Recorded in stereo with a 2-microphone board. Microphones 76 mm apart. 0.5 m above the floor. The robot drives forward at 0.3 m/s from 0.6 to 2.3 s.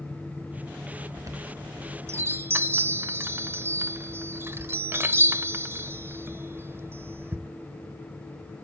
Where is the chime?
50° right (ahead or behind), 0.7 m; by 7.5 s 35° right (ahead or behind), 0.9 m.